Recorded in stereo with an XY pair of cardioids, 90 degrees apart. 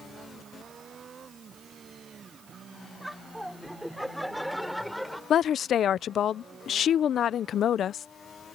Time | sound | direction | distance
3.0 | laughter | straight ahead | ?
5.3 | a woman speaking | 70° left | ?